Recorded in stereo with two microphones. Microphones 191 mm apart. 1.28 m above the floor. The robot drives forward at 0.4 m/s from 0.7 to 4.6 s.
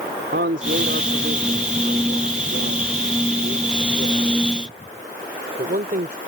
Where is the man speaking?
75° right (ahead or behind); by 6.2 s 50° right (ahead or behind).